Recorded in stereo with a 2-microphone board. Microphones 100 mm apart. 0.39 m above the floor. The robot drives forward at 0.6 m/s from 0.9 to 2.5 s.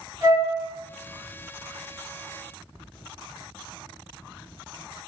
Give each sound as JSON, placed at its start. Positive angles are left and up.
{"t": 0.2, "sound": "a flute", "side_deg": -35, "distance_m": 0.7}